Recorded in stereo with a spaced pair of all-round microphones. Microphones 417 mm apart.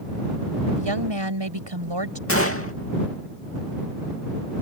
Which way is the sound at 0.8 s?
75° right (ahead or behind).